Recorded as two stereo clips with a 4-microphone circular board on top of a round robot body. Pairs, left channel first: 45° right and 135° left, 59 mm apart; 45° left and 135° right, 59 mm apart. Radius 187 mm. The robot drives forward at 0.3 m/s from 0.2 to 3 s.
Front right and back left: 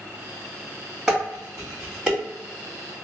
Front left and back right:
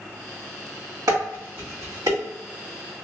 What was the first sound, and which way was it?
Dishes clattering, 145° right.